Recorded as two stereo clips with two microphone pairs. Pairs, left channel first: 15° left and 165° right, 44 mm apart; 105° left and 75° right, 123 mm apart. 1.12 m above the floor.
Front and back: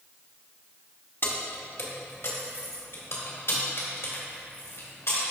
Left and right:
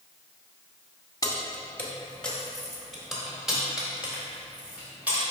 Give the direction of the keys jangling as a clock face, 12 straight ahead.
10 o'clock.